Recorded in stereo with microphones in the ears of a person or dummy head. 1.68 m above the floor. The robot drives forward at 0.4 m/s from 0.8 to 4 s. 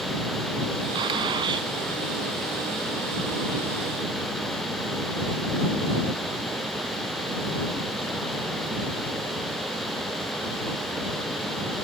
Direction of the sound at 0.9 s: 25° right (ahead or behind).